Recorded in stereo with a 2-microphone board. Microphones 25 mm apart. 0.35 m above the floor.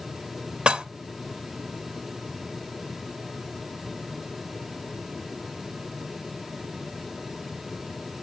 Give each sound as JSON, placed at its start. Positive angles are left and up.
{"t": 0.7, "sound": "dishes clattering", "side_deg": -45, "distance_m": 0.6}